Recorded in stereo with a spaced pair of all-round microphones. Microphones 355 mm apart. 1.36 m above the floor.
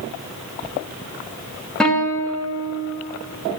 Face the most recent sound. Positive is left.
turn(degrees=0)  # may be behind; listen again after turning